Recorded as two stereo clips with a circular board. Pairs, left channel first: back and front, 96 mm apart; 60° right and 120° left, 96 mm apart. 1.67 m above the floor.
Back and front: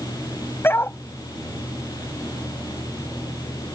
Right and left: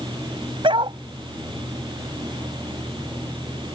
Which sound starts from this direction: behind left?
A dog barking, at 0.6 s.